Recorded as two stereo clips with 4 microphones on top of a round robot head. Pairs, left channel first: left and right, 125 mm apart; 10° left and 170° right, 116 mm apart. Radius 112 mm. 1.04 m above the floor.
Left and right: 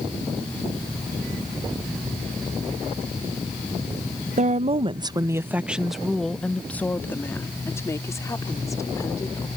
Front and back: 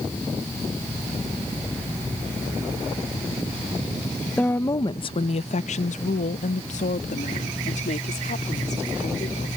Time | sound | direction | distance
4.4 | a woman speaking | 70° right | ?